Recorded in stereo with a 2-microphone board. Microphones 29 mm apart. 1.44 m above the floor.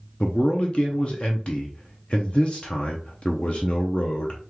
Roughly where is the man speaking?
Left.